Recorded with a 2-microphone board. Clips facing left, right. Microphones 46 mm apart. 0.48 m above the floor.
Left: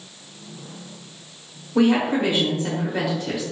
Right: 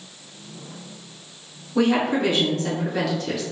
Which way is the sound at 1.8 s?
20° left (ahead or behind).